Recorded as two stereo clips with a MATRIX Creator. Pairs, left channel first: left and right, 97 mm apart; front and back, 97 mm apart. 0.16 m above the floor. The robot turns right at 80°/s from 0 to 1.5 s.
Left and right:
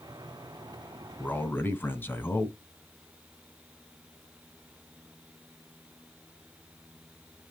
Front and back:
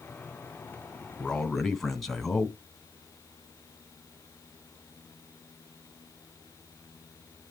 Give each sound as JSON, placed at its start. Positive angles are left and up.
{"t": 1.2, "sound": "a man speaking", "azimuth_deg": 60, "distance_m": 1.6}